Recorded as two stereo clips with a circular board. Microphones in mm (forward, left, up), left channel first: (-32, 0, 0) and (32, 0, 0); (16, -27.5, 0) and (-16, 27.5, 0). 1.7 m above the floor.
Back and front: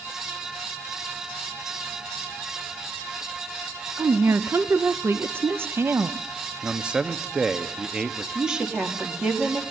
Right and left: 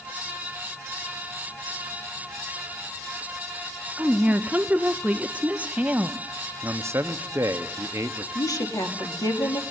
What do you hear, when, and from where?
4.0 s a woman speaking: 50° left, 0.7 m
6.6 s a man speaking: 75° left, 1.0 m
8.3 s a woman speaking: 80° right, 2.5 m